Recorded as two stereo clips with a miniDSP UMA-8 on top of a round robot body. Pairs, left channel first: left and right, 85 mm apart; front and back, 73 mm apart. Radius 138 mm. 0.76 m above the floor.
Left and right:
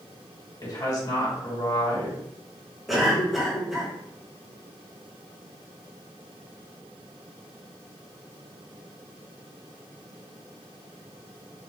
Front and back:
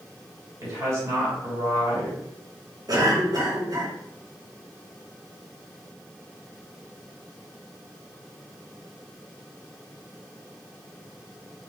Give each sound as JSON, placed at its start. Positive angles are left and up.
{"t": 0.6, "sound": "a woman speaking", "azimuth_deg": 135, "distance_m": 2.5}
{"t": 2.9, "sound": "a cough", "azimuth_deg": 180, "distance_m": 1.8}